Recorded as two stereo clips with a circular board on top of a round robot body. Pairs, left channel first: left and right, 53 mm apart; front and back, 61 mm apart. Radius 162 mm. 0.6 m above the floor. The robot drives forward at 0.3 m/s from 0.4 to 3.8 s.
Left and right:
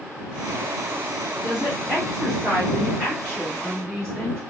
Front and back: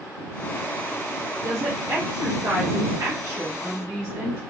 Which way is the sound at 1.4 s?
Straight behind.